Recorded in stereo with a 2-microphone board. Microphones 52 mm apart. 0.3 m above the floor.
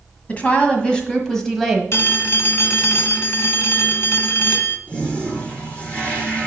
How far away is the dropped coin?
I don't hear a dropped coin.